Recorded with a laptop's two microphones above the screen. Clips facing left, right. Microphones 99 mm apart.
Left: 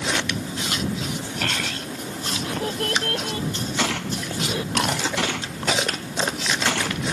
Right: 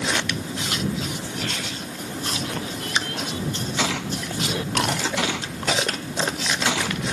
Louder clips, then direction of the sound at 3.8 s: Even; centre (ahead or behind).